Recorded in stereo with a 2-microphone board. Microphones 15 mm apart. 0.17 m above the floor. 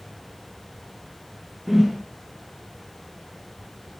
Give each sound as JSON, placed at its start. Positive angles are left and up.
{"t": 1.7, "sound": "a whoosh", "side_deg": -15, "distance_m": 3.5}